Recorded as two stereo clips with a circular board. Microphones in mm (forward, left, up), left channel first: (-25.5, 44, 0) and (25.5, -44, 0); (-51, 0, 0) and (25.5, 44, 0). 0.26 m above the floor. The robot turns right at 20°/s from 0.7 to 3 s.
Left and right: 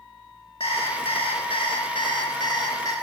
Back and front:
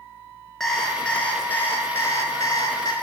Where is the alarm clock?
125° left, 1.8 m; by 2.9 s 170° left, 1.8 m.